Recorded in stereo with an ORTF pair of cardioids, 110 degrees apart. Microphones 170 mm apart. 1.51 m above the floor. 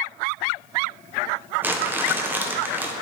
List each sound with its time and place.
1.6 s crumpling: 10° right, 0.7 m